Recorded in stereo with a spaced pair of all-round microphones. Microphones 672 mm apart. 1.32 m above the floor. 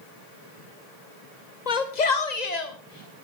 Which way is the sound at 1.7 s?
70° left (ahead or behind).